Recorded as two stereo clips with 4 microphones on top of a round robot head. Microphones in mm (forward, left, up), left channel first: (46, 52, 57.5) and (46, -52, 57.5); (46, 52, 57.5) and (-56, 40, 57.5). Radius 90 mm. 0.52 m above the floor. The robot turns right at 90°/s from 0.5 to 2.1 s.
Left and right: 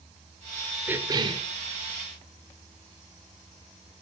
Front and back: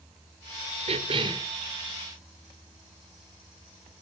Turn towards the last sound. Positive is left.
turn(degrees=-55)